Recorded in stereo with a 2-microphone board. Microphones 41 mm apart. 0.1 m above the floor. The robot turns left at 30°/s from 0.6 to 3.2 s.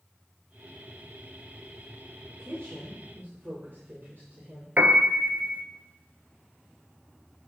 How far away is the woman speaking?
About 2.5 m.